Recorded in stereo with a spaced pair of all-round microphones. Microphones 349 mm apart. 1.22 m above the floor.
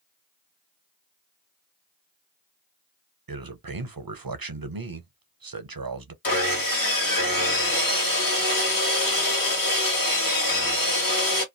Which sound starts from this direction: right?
A man speaking, at 3.3 s.